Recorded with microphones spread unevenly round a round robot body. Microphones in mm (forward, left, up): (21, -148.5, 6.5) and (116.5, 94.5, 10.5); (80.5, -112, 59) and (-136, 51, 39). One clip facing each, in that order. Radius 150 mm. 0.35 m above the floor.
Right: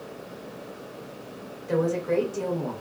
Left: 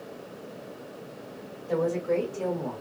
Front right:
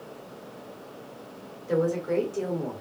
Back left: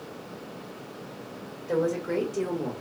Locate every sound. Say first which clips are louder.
1.7 s a woman speaking: right 2 dB, front right 1 dB; 110° right, 1.3 m; by 2.8 s 165° right, 1.3 m